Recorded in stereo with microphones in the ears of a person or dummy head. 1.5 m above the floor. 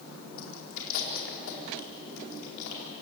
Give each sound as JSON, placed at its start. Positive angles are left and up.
{"t": 0.4, "sound": "chewing", "side_deg": 80, "distance_m": 4.5}